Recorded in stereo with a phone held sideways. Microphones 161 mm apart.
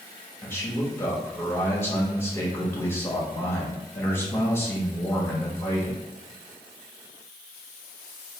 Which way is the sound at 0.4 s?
15° left (ahead or behind).